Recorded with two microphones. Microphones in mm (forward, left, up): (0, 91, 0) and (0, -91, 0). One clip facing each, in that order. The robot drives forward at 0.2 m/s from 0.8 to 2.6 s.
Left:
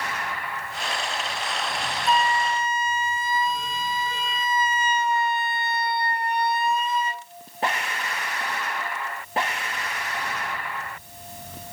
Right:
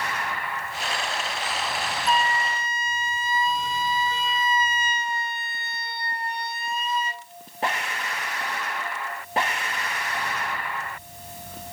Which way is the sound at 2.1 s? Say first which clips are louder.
Left 3 dB; 50° left (ahead or behind).